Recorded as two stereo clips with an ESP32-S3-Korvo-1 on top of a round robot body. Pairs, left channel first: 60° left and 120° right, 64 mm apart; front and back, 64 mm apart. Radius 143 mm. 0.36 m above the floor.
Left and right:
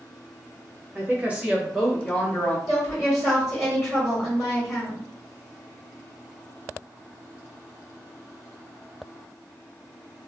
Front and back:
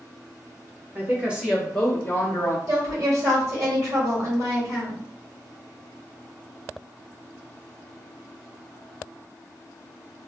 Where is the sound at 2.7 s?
155° left, 1.9 m.